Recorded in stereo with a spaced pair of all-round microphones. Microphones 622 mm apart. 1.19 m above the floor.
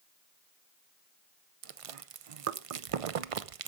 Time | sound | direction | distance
1.6 | chewing | 60° right (ahead or behind) | 0.6 m